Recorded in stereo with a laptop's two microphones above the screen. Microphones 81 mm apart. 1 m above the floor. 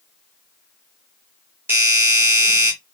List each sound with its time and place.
1.7 s a doorbell: 30° right (ahead or behind), 1.1 m